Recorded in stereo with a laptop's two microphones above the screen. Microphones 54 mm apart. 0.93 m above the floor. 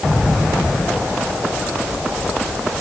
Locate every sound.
Only background noise.